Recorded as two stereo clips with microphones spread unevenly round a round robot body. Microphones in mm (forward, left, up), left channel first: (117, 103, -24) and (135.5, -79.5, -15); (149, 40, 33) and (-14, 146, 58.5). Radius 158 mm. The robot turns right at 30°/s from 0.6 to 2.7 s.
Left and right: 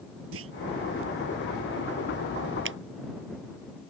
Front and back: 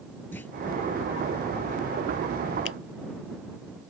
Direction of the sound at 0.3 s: 115° right.